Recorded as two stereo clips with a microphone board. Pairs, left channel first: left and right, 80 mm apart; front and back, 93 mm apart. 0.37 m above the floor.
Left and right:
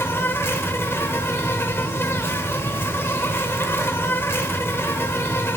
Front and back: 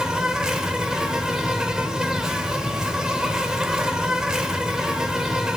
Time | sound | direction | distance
0.0 | an insect | 105° left | 1.0 m